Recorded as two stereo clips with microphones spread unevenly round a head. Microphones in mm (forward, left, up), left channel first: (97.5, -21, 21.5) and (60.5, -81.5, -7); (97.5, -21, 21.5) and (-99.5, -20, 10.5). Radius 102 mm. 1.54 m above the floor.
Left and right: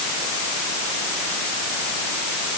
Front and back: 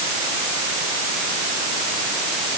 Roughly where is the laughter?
No laughter in this recording.